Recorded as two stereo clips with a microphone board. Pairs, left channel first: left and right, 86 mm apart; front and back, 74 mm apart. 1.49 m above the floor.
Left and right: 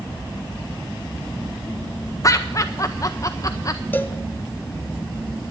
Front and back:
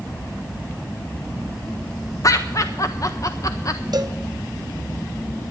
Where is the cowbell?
155° left, 0.9 m.